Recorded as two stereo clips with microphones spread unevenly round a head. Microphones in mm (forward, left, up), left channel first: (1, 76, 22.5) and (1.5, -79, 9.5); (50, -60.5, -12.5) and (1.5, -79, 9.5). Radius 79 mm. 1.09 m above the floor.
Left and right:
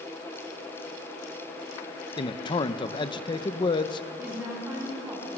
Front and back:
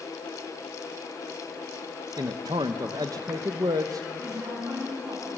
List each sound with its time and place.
2.2 s a man speaking: 155° left, 0.9 m
4.2 s a woman speaking: 170° right, 8.5 m